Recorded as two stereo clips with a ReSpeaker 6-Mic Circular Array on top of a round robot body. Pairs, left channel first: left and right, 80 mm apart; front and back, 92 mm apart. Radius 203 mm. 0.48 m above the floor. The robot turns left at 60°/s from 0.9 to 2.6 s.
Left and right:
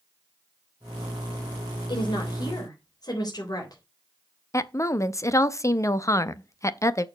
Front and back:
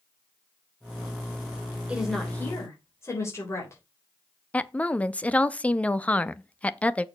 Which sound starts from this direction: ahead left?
A woman speaking, at 4.5 s.